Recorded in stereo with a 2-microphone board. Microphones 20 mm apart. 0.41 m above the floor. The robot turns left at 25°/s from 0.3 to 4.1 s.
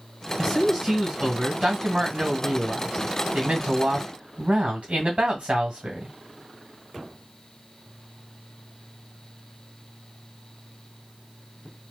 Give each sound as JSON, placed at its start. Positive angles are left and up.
{"t": 0.4, "sound": "a man speaking", "azimuth_deg": -20, "distance_m": 1.9}